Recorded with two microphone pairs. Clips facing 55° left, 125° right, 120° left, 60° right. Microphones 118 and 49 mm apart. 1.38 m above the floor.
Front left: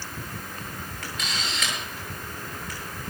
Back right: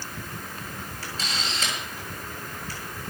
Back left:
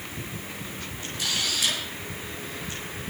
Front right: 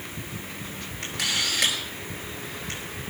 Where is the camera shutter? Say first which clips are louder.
Even, front right 2 dB; 65° right, 8.5 m.